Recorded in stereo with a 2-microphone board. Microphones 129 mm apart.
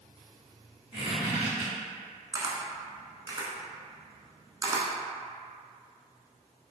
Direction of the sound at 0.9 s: 40° right (ahead or behind).